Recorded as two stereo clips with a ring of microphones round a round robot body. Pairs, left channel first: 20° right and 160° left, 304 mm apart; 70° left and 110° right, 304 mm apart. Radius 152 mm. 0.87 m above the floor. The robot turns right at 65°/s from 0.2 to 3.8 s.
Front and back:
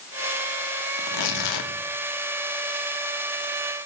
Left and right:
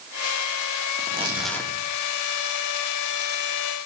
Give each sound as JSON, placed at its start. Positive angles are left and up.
{"t": 1.0, "sound": "tearing paper", "azimuth_deg": -55, "distance_m": 1.5}